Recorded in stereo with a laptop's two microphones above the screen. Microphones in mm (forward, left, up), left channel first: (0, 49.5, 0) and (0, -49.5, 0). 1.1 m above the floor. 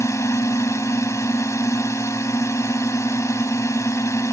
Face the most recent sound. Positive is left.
turn(degrees=30)  # may be behind; listen again after turning